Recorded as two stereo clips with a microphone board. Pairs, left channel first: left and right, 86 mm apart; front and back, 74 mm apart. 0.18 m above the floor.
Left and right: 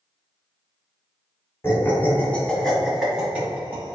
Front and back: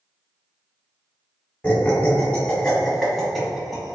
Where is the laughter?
60° left, 1.3 m; by 4.0 s 100° right, 1.3 m.